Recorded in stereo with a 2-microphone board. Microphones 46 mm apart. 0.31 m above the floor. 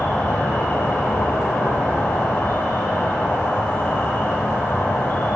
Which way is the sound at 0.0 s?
50° left (ahead or behind).